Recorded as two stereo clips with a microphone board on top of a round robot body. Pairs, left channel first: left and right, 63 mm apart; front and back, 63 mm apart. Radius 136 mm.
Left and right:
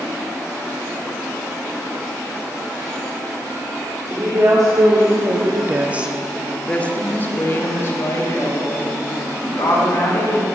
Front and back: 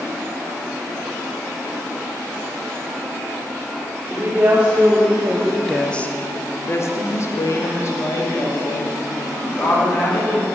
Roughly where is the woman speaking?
Behind right.